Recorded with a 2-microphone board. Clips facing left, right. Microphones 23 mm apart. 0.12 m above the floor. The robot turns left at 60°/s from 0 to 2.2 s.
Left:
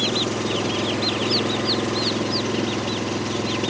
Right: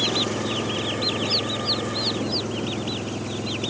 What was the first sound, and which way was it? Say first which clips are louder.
An engine running: left 1 dB; 175° left.